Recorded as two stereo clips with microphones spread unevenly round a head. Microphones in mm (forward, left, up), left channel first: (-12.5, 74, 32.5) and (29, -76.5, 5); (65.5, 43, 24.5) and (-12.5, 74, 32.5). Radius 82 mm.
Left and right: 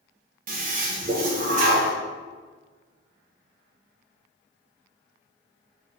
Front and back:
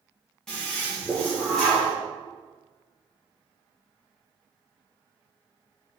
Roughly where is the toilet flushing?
Right.